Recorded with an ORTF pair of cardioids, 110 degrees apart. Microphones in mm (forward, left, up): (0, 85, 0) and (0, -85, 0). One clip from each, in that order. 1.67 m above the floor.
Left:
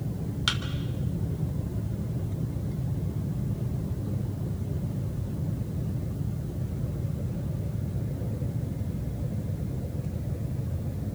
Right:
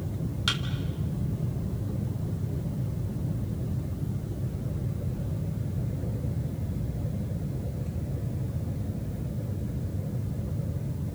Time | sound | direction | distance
0.5 | a thud | 15° left | 3 m